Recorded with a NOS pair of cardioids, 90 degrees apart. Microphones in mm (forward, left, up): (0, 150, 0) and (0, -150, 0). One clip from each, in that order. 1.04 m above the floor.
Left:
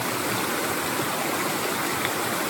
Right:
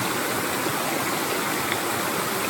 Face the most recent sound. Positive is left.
No sound to turn to.